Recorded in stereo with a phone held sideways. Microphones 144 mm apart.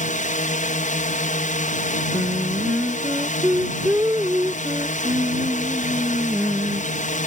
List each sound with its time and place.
0.0 s a drone: 60° left (ahead or behind)
2.1 s singing: 15° right (ahead or behind)